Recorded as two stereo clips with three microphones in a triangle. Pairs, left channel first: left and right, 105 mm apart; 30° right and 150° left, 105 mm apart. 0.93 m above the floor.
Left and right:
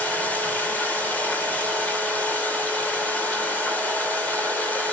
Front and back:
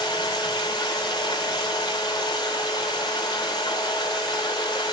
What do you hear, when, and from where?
0.0 s running water: 15° left, 2.5 m